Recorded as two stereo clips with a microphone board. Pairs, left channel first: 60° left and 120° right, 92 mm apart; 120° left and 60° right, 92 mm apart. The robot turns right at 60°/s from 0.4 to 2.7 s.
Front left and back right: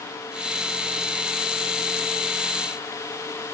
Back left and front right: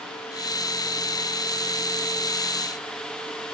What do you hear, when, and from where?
Only background noise.